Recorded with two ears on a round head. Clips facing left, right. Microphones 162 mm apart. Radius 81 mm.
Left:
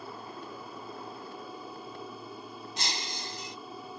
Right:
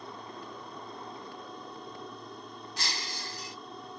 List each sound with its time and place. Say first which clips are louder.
0.0 s an aircraft: left 1 dB; 5° left (ahead or behind)
2.8 s breaking glass: left 1 dB; 20° left (ahead or behind)